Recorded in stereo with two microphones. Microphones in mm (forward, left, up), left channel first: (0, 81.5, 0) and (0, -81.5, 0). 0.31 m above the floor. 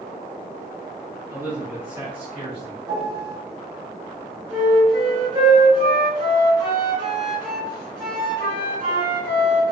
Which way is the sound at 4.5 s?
40° right (ahead or behind).